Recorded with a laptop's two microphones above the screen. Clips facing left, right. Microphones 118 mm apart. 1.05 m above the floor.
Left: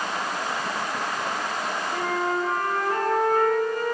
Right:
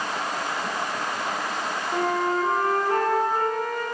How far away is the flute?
About 2.5 m.